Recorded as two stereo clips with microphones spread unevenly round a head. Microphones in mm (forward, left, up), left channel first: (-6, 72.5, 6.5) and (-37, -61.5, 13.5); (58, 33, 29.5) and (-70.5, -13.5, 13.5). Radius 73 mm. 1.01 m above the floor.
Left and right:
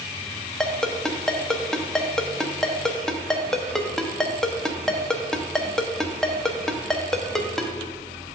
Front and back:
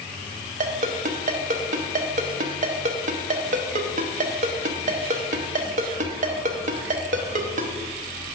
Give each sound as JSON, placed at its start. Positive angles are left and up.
{"t": 0.6, "sound": "a ringtone", "azimuth_deg": 165, "distance_m": 0.8}